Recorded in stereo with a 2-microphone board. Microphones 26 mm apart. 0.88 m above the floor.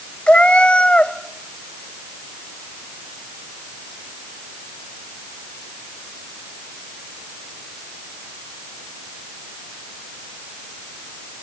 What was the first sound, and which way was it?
A cat meowing, 50° left (ahead or behind).